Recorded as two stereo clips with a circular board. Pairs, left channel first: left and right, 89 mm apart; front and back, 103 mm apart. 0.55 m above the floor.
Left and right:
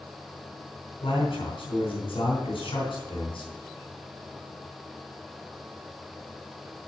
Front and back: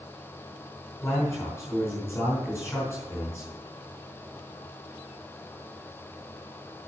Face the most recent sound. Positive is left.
turn(degrees=70)